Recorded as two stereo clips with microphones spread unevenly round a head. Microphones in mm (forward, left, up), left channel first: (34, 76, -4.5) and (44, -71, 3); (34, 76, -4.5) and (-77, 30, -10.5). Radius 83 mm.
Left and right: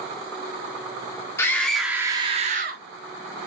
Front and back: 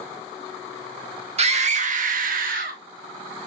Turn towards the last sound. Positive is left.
turn(degrees=-120)